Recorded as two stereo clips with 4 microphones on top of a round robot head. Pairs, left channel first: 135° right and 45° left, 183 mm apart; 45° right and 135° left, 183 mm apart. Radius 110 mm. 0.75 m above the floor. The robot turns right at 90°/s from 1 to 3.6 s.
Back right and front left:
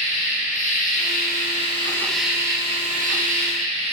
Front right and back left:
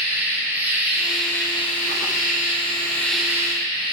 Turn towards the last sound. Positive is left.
turn(degrees=85)